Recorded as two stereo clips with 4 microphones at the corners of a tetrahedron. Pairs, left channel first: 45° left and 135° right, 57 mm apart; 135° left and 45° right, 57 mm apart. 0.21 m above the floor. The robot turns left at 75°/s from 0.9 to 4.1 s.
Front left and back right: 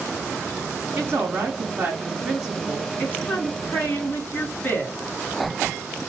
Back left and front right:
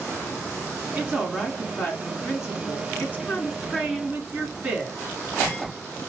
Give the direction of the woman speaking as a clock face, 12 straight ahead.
3 o'clock.